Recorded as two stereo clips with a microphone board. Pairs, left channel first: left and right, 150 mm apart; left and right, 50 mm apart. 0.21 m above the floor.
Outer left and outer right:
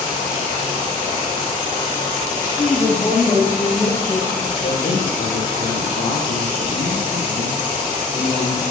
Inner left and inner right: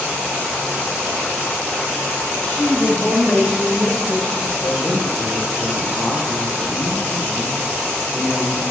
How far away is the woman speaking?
About 7.5 m.